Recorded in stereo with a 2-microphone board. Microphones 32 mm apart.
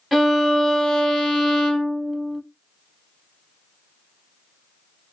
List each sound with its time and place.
0.1 s a violin: centre (ahead or behind), 0.6 m